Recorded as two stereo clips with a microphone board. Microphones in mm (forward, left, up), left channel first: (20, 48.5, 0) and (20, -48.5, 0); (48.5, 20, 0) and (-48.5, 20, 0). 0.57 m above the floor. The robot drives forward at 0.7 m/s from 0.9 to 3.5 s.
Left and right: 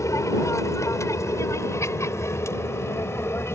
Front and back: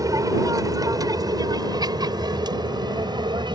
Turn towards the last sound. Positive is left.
turn(degrees=150)